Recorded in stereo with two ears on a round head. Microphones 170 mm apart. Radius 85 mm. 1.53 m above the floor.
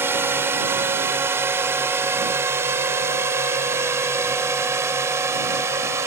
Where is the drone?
10° right (ahead or behind); by 6.1 s 15° right (ahead or behind).